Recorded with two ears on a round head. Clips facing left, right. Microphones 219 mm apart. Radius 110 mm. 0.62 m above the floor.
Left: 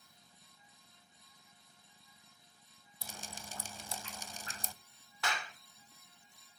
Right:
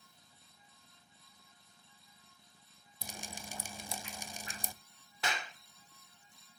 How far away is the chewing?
I don't hear chewing.